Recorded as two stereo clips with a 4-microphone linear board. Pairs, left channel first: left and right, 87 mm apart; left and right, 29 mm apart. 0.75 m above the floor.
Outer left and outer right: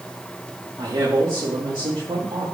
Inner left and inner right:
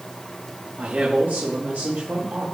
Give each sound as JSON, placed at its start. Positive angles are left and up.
{"t": 0.8, "sound": "a man speaking", "side_deg": -70, "distance_m": 1.7}